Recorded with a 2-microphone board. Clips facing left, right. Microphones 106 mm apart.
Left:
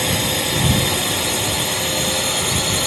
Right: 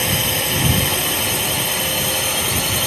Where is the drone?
5° left (ahead or behind).